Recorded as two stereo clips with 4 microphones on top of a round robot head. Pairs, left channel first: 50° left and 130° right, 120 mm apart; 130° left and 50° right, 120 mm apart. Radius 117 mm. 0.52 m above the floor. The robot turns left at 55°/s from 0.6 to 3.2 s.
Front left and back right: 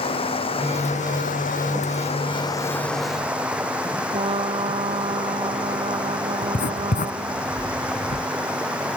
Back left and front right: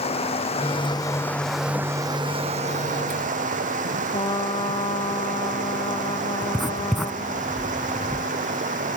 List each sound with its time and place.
0.0 s running water: 95° left; by 9.0 s 50° right
4.1 s a trumpet: 175° right
6.4 s writing: 40° left